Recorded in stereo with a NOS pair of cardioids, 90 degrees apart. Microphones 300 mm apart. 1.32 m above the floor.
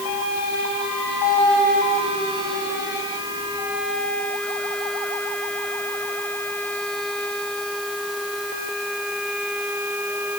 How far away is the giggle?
I don't hear a giggle.